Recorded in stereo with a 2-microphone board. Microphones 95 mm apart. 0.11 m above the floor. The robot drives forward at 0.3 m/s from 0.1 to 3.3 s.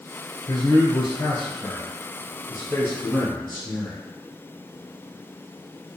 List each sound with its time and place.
0.5 s a man speaking: 30° left (ahead or behind), 1.1 m; by 4.0 s 25° left (ahead or behind), 1.4 m